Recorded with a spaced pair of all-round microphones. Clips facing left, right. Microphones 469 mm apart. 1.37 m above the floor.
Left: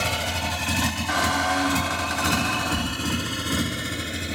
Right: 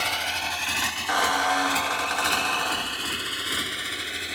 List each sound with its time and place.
0.0 s a motorcycle: 65° left (ahead or behind)
1.1 s a squeak: 45° left (ahead or behind)